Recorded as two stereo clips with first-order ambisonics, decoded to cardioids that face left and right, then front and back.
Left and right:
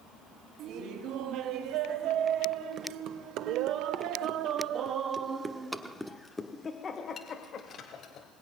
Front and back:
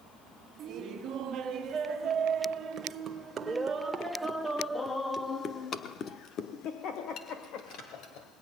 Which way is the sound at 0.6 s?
120° right.